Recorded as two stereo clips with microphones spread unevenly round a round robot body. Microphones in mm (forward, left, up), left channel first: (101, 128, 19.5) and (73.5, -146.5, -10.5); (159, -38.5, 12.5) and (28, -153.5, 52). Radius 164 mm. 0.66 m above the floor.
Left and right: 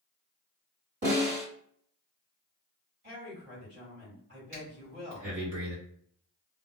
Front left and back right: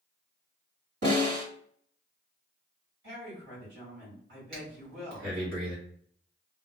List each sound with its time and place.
1.0 s a snare drum: 150° right, 1.8 m
3.0 s a woman speaking: 145° right, 1.9 m
4.5 s breathing: 140° right, 1.6 m